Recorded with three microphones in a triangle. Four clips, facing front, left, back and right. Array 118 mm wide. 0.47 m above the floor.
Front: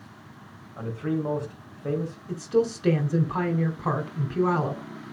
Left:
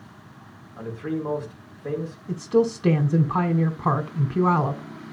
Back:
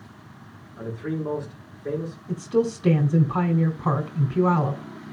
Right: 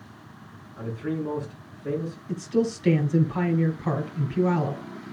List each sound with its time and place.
0.8 s a man speaking: 25° left, 4.5 m
2.3 s a woman speaking: 90° left, 1.9 m